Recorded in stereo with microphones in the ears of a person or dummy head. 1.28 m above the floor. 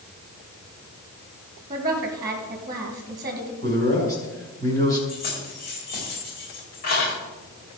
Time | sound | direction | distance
1.7 | a woman speaking | 25° right (ahead or behind) | 1.4 m
3.6 | a man speaking | 15° left (ahead or behind) | 4.5 m
5.1 | keys jangling | 45° left (ahead or behind) | 5 m